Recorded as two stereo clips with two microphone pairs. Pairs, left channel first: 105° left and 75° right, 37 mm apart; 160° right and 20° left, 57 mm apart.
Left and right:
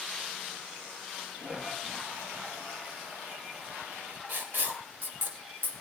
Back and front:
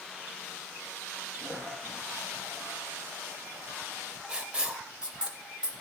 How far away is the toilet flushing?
About 6 m.